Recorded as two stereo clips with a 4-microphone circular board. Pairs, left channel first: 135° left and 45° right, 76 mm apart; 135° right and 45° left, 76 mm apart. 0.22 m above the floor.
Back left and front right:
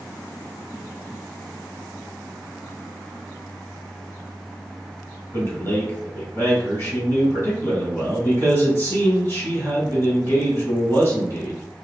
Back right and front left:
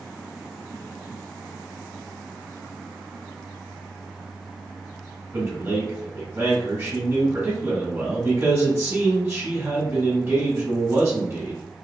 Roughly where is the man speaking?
Left.